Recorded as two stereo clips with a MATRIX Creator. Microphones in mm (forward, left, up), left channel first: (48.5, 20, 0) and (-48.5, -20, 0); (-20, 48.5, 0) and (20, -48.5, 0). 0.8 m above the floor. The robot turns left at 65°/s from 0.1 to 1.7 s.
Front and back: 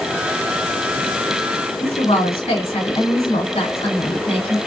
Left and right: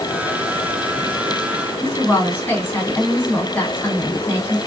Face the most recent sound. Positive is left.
turn(degrees=45)